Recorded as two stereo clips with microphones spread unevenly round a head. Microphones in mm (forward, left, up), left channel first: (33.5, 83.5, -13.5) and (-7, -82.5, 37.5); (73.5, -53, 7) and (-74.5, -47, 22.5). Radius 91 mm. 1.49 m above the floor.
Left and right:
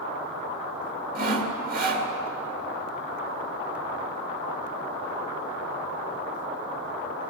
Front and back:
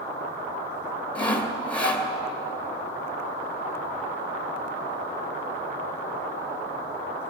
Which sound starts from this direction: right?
Sawing, at 1.1 s.